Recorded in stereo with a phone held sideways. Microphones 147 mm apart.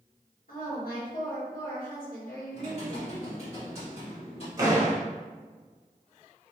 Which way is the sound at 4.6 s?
25° right (ahead or behind).